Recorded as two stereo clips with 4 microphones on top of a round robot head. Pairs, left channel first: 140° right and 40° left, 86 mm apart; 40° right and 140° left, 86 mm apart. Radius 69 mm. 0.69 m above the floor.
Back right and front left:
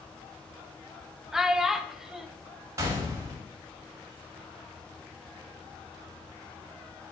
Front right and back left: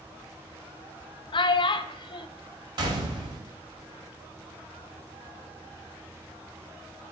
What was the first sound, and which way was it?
A child speaking, 45° right.